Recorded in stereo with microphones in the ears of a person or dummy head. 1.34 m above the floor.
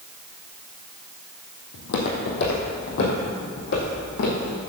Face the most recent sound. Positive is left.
turn(degrees=65)  # may be behind; listen again after turning